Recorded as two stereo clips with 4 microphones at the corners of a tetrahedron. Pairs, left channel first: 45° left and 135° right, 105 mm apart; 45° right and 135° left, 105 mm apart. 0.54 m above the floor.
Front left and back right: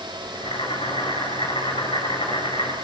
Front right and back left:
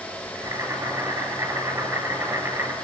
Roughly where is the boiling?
Left.